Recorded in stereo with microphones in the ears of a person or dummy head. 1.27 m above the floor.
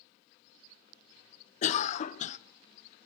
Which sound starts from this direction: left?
A cough, at 1.6 s.